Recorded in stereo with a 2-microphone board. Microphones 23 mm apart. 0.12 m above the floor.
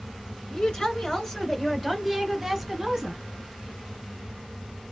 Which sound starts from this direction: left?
A woman speaking, at 0.5 s.